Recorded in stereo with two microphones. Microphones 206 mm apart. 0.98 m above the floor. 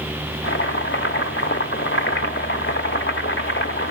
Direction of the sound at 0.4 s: 70° left (ahead or behind).